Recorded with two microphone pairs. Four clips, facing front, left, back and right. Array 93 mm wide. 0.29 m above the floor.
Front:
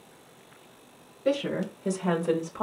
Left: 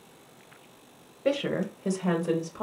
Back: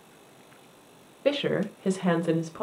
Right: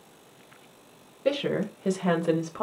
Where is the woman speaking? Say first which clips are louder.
Right 1 dB, back 2 dB; 160° left, 1.0 m; by 2.6 s 70° right, 0.9 m.